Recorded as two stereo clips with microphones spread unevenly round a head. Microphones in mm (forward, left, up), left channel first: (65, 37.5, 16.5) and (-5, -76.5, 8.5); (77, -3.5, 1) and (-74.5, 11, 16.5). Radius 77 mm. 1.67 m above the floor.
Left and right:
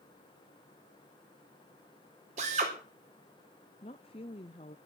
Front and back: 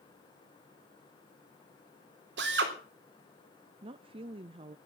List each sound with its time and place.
2.4 s a drill: 170° right, 4 m
3.8 s a woman speaking: 115° left, 0.6 m